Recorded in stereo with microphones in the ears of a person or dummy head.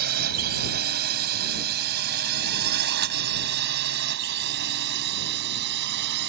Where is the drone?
50° right (ahead or behind); by 6.3 s 60° right (ahead or behind).